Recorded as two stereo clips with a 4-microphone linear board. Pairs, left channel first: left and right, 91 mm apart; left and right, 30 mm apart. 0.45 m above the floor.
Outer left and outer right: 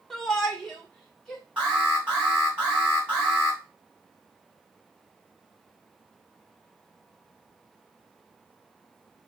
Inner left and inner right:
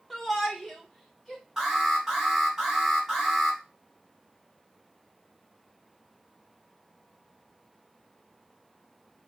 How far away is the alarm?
About 2.5 m.